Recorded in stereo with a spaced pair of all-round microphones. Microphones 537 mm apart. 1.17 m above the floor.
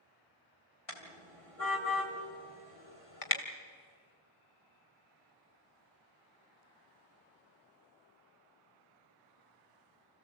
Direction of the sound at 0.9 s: 80° left.